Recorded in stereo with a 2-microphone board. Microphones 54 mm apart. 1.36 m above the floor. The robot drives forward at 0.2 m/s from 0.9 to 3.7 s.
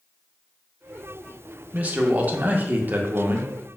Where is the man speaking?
30° right (ahead or behind), 0.5 m; by 3.5 s 35° right (ahead or behind), 0.5 m.